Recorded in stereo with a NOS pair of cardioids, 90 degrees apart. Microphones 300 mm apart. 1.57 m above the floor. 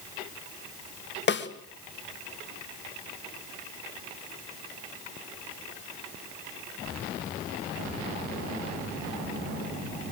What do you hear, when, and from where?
1.3 s a snare drum: 35° left, 3 m